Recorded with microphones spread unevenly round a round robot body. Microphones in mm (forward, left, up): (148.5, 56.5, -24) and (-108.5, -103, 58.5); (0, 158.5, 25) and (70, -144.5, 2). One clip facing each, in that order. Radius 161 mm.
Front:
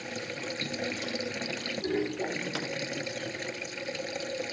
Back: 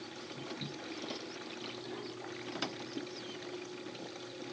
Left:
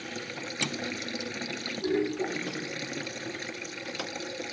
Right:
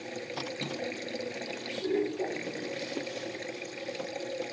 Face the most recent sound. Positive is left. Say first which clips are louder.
# front 8 dB, right 1 dB
turn(degrees=45)